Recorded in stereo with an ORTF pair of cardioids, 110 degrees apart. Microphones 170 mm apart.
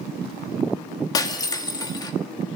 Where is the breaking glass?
25° left, 1.8 m.